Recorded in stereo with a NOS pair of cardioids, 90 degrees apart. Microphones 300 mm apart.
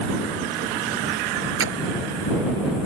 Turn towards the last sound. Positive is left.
turn(degrees=-45)